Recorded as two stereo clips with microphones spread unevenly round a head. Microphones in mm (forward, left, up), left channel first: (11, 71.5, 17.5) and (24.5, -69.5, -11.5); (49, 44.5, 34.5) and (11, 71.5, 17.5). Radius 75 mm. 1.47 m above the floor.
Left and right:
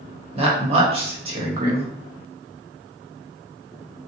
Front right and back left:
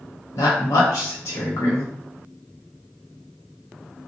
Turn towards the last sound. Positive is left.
turn(degrees=-35)